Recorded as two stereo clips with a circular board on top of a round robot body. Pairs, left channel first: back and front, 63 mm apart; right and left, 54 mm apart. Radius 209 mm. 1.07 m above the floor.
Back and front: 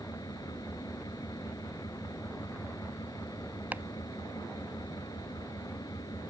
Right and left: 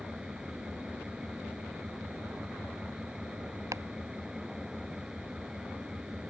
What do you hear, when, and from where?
0.0 s an engine running: 170° left
3.7 s chopping: 65° left